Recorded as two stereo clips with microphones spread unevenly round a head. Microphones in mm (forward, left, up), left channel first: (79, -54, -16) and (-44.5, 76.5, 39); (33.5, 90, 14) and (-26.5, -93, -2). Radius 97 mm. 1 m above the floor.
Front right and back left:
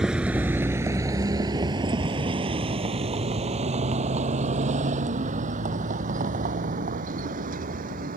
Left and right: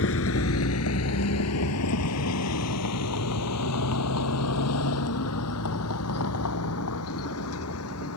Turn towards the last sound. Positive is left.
turn(degrees=90)